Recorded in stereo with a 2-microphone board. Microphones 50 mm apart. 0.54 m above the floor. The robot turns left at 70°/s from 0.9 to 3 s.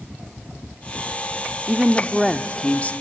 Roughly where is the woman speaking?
Behind right.